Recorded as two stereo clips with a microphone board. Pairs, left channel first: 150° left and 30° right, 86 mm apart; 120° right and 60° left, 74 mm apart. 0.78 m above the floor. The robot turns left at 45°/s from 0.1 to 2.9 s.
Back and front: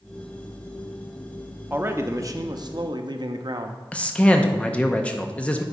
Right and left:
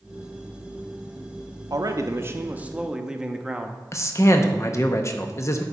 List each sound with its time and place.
1.7 s a man speaking: 35° left, 0.7 m; by 3.8 s 20° right, 0.7 m
3.9 s a man speaking: 140° right, 0.6 m